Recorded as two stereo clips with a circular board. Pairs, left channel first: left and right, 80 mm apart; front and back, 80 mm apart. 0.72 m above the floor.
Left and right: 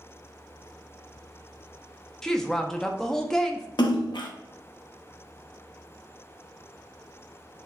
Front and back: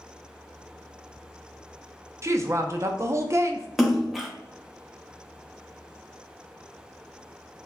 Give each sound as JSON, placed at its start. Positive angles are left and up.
{"t": 2.2, "sound": "a woman speaking", "azimuth_deg": 170, "distance_m": 0.5}
{"t": 3.8, "sound": "a splash", "azimuth_deg": 90, "distance_m": 0.6}